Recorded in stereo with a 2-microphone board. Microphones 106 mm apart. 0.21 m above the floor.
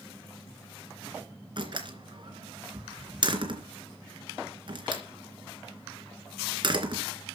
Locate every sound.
1.6 s a door slam: 45° right (ahead or behind), 2.5 m